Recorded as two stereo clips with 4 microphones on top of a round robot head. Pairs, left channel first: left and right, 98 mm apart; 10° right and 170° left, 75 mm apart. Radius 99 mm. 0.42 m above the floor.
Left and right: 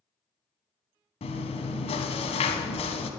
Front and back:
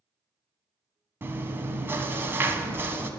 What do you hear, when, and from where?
1.2 s chewing: 110° left, 0.8 m